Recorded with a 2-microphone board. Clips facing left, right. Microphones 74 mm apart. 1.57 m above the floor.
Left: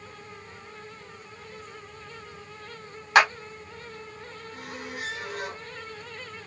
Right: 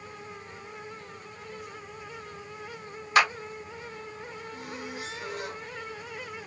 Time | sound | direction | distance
3.1 | a clap | 80° left | 3 m
4.5 | a squeak | 60° left (ahead or behind) | 4 m